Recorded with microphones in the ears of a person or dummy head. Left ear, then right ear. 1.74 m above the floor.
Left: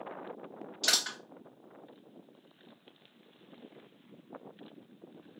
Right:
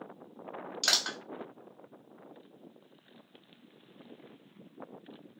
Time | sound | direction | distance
0.8 | crushing | 25° right (ahead or behind) | 2.5 m